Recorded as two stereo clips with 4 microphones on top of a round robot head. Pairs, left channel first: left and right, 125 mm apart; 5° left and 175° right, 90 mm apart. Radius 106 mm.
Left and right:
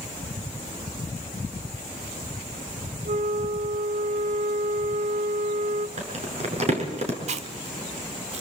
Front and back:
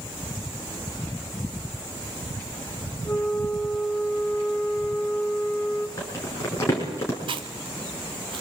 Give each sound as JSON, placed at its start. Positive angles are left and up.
{"t": 3.0, "sound": "a flute", "azimuth_deg": -60, "distance_m": 0.7}
{"t": 6.0, "sound": "crumpling", "azimuth_deg": -60, "distance_m": 5.5}
{"t": 7.3, "sound": "chewing", "azimuth_deg": -130, "distance_m": 1.0}